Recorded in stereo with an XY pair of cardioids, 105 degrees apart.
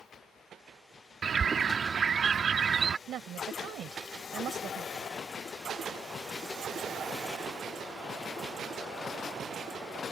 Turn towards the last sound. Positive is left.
turn(degrees=-70)